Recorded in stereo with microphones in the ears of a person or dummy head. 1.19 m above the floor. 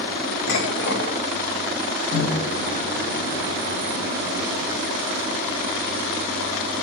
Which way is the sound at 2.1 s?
45° left (ahead or behind).